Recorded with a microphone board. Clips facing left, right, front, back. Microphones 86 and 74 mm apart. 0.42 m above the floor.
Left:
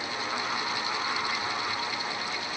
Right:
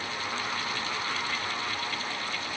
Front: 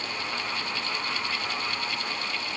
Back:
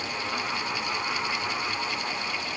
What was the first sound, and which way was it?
Only background noise.